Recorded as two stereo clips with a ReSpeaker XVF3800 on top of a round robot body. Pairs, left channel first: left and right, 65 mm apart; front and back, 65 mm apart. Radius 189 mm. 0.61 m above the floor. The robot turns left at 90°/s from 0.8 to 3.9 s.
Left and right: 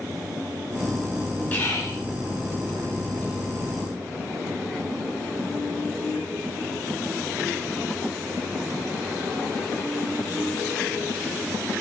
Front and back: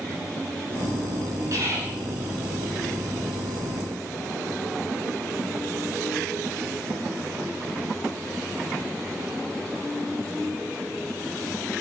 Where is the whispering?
150° left, 4.5 m; by 2.0 s 100° left, 4.5 m.